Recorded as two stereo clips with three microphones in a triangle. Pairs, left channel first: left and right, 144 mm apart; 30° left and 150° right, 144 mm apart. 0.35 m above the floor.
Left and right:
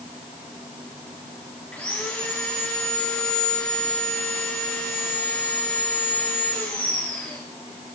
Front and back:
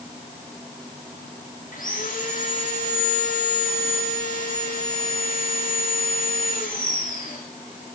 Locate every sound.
1.7 s sawing: 5° left, 8 m